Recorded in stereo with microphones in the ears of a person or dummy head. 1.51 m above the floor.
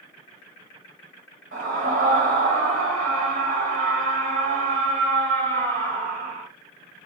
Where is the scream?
50° right (ahead or behind), 1.3 m.